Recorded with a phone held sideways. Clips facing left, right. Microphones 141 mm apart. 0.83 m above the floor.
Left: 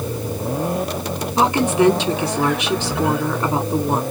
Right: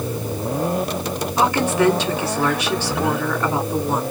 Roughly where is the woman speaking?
Centre.